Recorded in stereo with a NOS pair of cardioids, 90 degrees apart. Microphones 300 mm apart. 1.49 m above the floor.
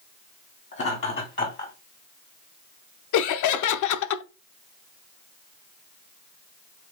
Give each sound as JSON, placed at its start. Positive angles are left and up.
{"t": 0.7, "sound": "laughter", "azimuth_deg": 40, "distance_m": 3.0}
{"t": 3.1, "sound": "laughter", "azimuth_deg": 65, "distance_m": 0.8}